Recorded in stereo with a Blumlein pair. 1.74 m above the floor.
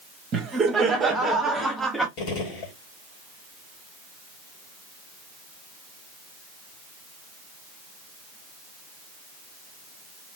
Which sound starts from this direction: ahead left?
A gunshot, at 2.2 s.